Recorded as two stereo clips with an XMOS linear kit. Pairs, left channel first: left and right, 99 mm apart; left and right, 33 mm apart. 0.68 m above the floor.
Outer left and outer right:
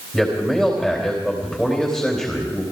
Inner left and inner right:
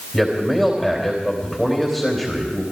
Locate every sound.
0.1 s a man speaking: centre (ahead or behind), 3.5 m